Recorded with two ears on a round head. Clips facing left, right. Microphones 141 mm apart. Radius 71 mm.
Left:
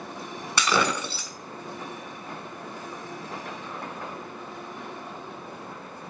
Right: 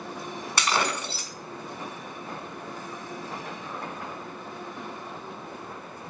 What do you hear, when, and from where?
0.6 s breaking glass: 80° left, 2.5 m